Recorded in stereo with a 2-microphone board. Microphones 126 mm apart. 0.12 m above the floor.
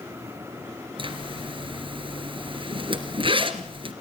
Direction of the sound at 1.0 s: 45° right (ahead or behind).